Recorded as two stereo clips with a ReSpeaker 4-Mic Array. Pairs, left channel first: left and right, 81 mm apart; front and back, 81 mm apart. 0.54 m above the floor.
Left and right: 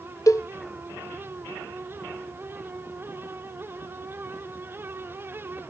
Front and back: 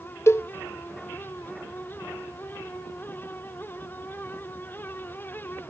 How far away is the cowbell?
About 0.5 m.